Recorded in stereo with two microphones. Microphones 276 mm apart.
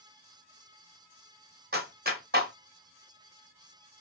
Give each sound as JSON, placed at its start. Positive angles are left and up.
{"t": 1.7, "sound": "a clap", "side_deg": -35, "distance_m": 1.3}